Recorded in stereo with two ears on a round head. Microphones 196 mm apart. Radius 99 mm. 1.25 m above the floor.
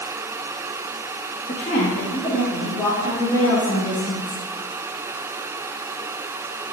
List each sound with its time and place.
1.5 s a woman speaking: 35° left (ahead or behind), 1.7 m; by 4.4 s 15° left (ahead or behind), 4.5 m